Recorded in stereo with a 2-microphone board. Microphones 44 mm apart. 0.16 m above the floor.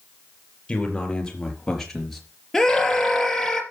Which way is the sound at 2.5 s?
5° left (ahead or behind).